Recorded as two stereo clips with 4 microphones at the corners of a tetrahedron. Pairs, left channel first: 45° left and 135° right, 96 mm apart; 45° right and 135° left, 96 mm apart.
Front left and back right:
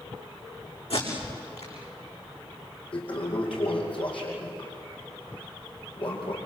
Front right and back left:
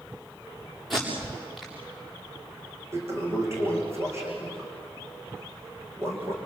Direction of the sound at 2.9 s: 75° left.